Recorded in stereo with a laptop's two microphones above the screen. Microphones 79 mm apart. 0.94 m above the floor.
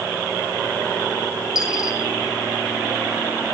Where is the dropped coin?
5° right (ahead or behind), 8.5 m.